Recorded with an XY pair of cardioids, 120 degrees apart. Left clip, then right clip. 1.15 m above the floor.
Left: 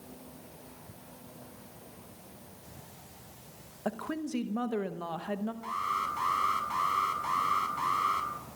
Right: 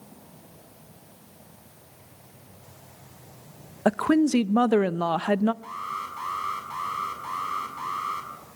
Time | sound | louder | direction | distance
3.9 | a woman speaking | right 14 dB | 65° right | 0.7 m
5.6 | an alarm | left 1 dB | 10° left | 5.5 m